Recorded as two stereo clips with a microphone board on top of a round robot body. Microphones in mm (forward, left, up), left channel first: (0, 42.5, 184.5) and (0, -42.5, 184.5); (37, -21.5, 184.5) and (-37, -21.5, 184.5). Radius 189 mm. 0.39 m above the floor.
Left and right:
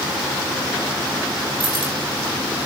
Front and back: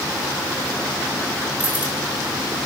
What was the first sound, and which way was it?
Keys jangling, 105° right.